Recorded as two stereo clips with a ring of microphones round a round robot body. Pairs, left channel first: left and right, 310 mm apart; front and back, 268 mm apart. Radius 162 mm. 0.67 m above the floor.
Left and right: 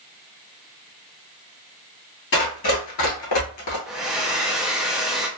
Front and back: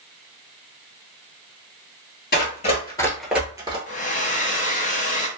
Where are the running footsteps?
45° left, 1.0 m; by 3.8 s 110° left, 0.9 m.